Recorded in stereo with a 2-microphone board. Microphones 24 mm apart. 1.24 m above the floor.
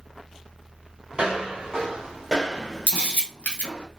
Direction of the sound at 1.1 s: 35° right (ahead or behind).